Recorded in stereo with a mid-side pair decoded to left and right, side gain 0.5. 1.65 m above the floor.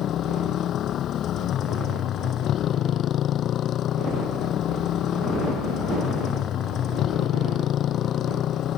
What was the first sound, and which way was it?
A motorcycle, 60° left.